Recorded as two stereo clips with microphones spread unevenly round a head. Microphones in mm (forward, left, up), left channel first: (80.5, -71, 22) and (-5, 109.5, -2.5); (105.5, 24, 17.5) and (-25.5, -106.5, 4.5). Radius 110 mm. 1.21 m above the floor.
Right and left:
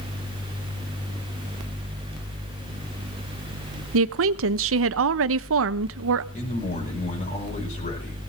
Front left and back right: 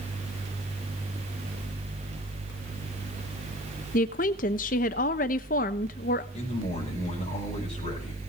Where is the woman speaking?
100° left, 0.9 m.